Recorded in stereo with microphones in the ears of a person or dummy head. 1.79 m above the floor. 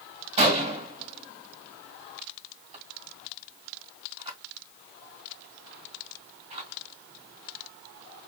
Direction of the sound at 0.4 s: 35° right (ahead or behind).